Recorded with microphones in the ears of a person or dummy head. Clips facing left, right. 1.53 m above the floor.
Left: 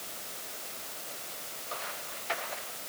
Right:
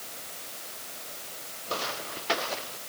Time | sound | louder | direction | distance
1.7 | footsteps | right 8 dB | 65° right (ahead or behind) | ?